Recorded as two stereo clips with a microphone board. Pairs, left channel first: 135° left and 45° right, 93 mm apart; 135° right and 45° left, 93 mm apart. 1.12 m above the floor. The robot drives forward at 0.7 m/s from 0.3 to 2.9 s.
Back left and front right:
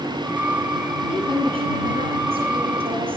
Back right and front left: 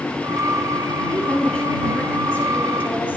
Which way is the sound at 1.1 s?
60° right.